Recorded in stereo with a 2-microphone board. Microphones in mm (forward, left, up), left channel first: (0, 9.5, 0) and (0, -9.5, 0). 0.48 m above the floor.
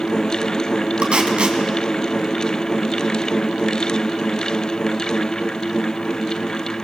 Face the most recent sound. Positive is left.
turn(degrees=-60)  # may be behind; listen again after turning